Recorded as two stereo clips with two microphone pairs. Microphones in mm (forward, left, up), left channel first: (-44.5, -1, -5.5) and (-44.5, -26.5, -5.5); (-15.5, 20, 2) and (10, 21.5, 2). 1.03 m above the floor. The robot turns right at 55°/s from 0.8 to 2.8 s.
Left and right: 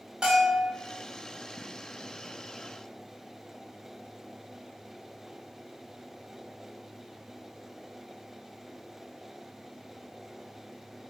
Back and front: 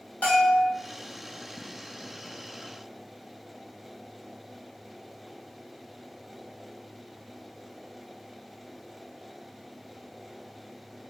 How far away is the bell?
About 1.2 m.